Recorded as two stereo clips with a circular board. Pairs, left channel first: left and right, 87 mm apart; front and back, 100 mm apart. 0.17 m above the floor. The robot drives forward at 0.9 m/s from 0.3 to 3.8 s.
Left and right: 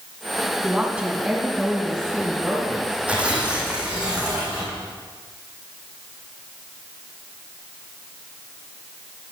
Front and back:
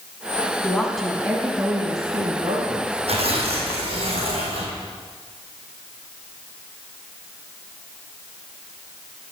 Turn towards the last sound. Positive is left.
turn(degrees=-170)